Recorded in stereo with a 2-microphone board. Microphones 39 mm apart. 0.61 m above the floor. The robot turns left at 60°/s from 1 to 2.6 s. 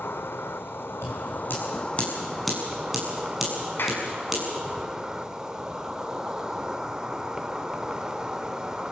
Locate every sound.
0.0 s an insect: 80° left, 1.1 m; by 8.9 s 15° right, 1.1 m
1.0 s scissors: 80° left, 7 m; by 4.4 s 5° right (ahead or behind), 7 m
3.8 s a clap: 65° left (ahead or behind), 4.5 m